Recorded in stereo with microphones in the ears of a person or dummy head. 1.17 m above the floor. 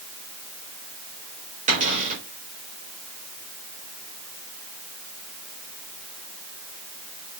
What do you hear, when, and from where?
1.7 s a cupboard door: 40° right (ahead or behind), 4 m